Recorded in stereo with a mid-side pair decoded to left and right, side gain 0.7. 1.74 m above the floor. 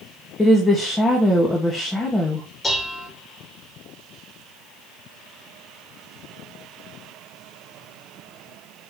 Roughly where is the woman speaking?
Ahead.